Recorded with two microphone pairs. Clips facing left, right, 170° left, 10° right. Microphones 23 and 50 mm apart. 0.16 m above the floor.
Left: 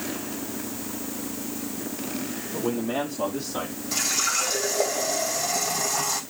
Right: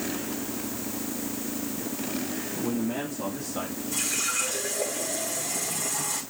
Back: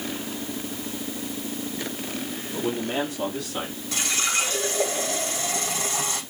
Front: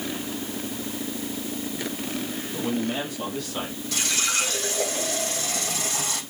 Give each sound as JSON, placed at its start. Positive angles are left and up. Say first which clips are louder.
{"t": 2.5, "sound": "a man speaking", "louder": "left 3 dB, back 1 dB", "azimuth_deg": 95, "distance_m": 5.0}
{"t": 3.9, "sound": "a running tap", "louder": "left 5 dB, back 1 dB", "azimuth_deg": 95, "distance_m": 5.5}